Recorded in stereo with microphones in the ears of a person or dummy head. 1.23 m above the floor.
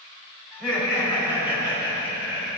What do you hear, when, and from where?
0.5 s laughter: centre (ahead or behind), 2.5 m; by 2.6 s 10° right (ahead or behind), 4 m